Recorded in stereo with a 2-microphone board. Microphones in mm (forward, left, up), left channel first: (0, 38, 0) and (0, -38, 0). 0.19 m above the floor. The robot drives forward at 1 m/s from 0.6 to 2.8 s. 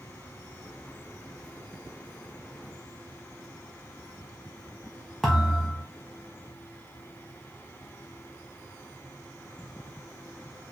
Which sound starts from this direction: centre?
A thud, at 5.2 s.